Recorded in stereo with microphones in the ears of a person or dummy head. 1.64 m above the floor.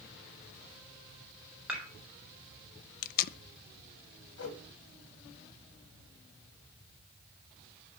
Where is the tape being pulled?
55° left (ahead or behind), 0.6 m.